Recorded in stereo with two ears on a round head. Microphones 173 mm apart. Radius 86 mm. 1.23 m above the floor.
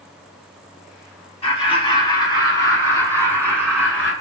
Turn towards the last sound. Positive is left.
turn(degrees=5)  # may be behind; listen again after turning